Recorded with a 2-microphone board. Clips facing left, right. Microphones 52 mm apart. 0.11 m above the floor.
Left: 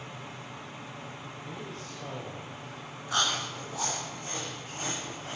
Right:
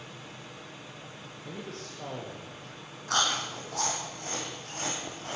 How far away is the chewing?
About 7 m.